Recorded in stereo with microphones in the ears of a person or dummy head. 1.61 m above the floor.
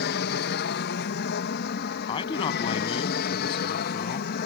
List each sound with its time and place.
0.0 s an aircraft: 55° left (ahead or behind)
2.1 s a man speaking: 30° left (ahead or behind)